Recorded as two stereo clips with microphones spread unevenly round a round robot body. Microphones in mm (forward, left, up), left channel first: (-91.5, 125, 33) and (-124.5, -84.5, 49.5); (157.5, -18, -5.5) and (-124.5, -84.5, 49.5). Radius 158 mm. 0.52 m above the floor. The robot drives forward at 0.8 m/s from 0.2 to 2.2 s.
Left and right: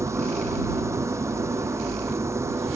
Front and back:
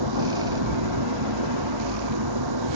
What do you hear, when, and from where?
0.0 s an engine running: 175° right